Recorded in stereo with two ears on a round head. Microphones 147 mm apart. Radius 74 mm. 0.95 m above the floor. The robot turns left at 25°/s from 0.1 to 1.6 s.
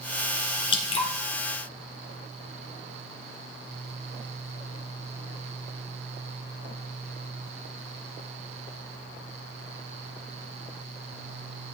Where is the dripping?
30° left (ahead or behind), 1.8 m; by 1.1 s 40° left (ahead or behind), 1.8 m.